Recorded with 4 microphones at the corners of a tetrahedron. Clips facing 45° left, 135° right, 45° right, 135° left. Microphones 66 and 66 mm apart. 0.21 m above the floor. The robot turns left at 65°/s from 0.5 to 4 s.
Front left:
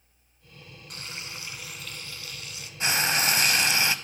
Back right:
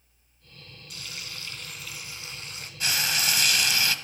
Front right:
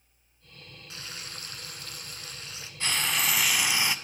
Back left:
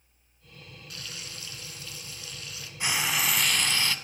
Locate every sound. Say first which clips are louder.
0.9 s frying: front left 2 dB, front right 1 dB; 10° left, 0.9 m; by 2.7 s 105° right, 0.9 m
2.8 s frying: front left 3 dB, back left 1 dB; 80° left, 0.6 m; by 4.0 s 5° left, 0.6 m